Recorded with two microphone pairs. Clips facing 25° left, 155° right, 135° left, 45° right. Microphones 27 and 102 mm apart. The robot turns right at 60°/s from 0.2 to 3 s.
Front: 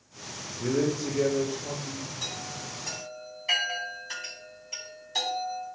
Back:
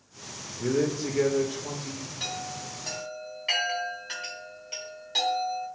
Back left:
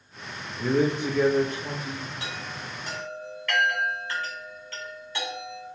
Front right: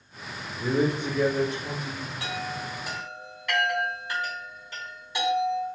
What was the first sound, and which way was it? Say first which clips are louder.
A man speaking: back 1 dB, back left 1 dB; 115° left.